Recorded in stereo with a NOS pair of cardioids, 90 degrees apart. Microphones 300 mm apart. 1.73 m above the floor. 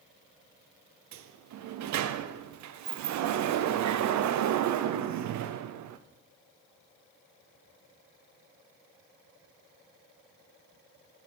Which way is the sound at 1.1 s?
65° right.